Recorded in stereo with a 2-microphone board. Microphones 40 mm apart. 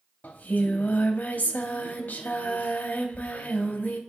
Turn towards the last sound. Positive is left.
turn(degrees=50)  # may be behind; listen again after turning